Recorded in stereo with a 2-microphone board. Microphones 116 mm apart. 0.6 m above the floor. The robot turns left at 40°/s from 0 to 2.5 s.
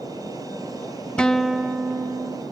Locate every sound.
1.2 s a guitar: 10° left, 0.5 m; by 2.4 s 40° right, 0.5 m